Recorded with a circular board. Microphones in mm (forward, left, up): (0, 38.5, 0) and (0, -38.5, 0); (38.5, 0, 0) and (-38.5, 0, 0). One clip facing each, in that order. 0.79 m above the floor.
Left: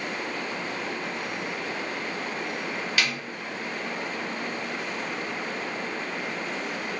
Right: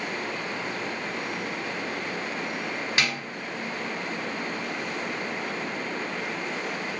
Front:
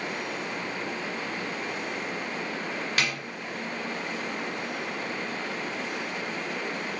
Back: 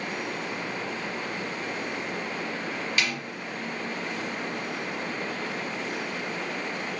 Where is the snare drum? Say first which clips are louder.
Right 1 dB, even; 30° right, 2.0 m.